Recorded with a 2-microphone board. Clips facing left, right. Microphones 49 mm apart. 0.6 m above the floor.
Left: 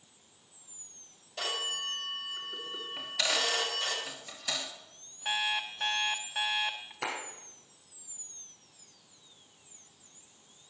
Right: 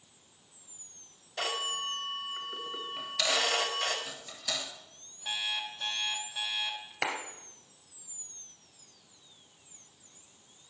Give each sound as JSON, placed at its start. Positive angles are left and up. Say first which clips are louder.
{"t": 1.4, "sound": "a phone ringing", "louder": "right 1 dB", "side_deg": -45, "distance_m": 1.4}
{"t": 3.0, "sound": "a dropped coin", "louder": "right 1 dB", "side_deg": 15, "distance_m": 1.4}
{"t": 5.2, "sound": "an alarm clock", "louder": "left 3 dB", "side_deg": 55, "distance_m": 0.9}
{"t": 7.0, "sound": "a clap", "louder": "right 3 dB", "side_deg": -75, "distance_m": 2.5}